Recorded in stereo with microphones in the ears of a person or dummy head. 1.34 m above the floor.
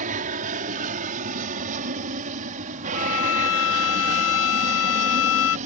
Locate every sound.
0.0 s an aircraft: 40° right (ahead or behind)
2.9 s a violin: 75° left (ahead or behind)